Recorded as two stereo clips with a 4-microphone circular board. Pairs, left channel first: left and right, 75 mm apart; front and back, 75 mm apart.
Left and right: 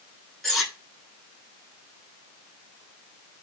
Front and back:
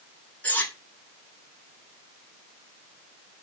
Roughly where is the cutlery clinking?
Ahead.